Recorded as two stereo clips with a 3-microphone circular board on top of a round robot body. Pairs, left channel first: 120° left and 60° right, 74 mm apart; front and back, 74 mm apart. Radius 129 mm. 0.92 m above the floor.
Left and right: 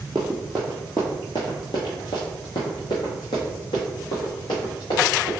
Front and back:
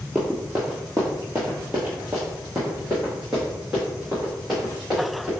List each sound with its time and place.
0.1 s running footsteps: 110° right, 0.9 m; by 5.3 s 95° left, 3 m